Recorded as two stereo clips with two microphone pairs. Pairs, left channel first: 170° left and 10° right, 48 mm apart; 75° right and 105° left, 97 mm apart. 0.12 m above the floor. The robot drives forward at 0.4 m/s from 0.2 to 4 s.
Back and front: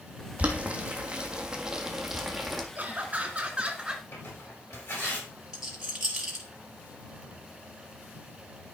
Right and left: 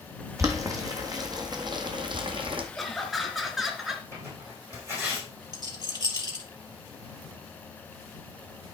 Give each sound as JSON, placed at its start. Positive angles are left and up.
{"t": 0.4, "sound": "boiling", "azimuth_deg": 50, "distance_m": 1.8}
{"t": 2.8, "sound": "laughter", "azimuth_deg": 15, "distance_m": 1.5}
{"t": 4.1, "sound": "tearing paper", "azimuth_deg": 170, "distance_m": 5.5}
{"t": 5.5, "sound": "a rattle", "azimuth_deg": 65, "distance_m": 3.0}